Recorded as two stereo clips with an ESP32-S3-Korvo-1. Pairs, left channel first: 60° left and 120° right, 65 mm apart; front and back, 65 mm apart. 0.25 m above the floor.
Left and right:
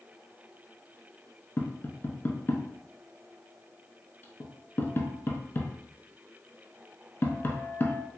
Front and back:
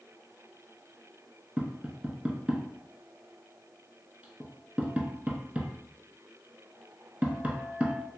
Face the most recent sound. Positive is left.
turn(degrees=115)